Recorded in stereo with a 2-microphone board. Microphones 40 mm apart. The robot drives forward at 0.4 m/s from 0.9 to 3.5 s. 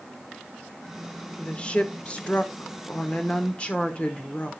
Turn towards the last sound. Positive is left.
turn(degrees=30)  # may be behind; listen again after turning